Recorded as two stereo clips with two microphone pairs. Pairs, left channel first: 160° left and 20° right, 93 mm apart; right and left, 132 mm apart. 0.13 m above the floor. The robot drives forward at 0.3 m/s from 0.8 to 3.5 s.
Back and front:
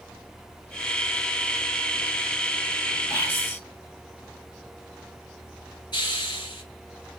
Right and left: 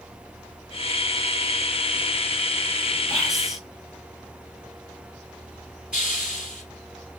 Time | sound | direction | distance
3.1 | whispering | 175° left | 1.1 m
5.9 | a hiss | 170° left | 1.7 m